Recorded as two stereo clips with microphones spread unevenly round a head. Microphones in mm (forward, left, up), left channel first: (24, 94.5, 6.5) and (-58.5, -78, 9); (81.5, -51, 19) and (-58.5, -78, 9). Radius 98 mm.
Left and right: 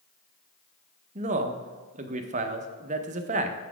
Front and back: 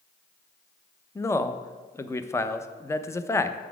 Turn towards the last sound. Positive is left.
turn(degrees=-65)